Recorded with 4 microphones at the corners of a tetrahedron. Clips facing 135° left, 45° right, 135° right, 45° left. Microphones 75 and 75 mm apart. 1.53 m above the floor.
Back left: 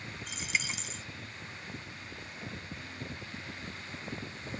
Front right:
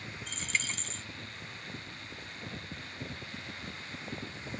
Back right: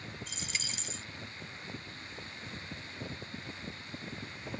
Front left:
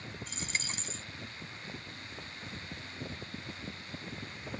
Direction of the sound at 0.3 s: 55° left.